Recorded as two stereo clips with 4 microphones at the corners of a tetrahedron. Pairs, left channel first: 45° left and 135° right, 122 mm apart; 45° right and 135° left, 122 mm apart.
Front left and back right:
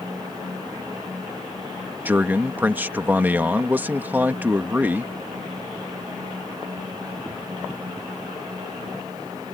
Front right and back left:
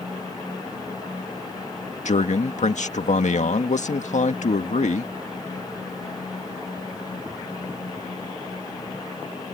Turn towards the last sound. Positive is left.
turn(degrees=-60)